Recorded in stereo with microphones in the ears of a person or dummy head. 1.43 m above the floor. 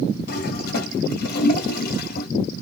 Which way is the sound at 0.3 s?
60° left (ahead or behind).